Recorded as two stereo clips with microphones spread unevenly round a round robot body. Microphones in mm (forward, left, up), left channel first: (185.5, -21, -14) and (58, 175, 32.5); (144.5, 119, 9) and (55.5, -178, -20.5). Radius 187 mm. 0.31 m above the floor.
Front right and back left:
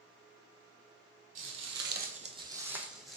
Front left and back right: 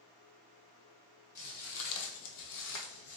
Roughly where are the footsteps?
Behind left.